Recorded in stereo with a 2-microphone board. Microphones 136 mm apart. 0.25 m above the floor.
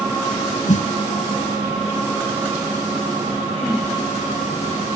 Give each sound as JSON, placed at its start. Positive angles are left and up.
{"t": 0.7, "sound": "a snare drum", "side_deg": 60, "distance_m": 0.6}